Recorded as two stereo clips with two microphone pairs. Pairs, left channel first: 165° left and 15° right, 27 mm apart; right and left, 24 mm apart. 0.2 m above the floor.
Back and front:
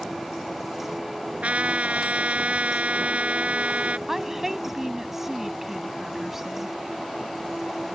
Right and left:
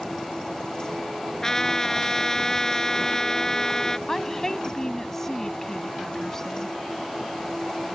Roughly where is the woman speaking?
Right.